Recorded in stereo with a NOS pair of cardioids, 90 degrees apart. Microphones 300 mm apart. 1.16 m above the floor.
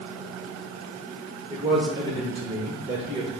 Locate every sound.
1.5 s a man speaking: 15° right, 1.2 m